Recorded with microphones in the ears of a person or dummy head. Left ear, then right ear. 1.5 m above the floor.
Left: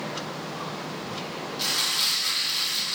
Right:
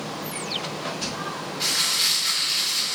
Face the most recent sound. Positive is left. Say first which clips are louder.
# right 2 dB
turn(degrees=65)  # may be behind; listen again after turning